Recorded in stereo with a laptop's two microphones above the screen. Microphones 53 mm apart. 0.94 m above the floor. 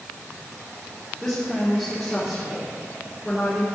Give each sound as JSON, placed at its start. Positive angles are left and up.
{"t": 1.2, "sound": "a woman speaking", "side_deg": 0, "distance_m": 3.0}